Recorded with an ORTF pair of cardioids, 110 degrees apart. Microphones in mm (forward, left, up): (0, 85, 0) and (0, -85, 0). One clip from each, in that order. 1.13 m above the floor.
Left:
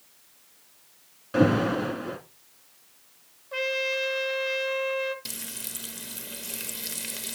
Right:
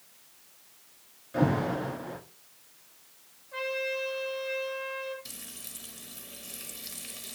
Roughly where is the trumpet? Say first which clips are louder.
Left 5 dB; left.